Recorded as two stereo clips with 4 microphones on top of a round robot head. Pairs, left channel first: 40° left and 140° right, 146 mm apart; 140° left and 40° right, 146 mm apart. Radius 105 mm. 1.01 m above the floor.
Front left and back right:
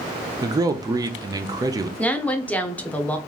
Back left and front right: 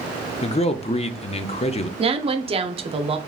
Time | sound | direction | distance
0.4 | a man speaking | 160° left | 0.6 m
2.0 | a woman speaking | 40° right | 0.7 m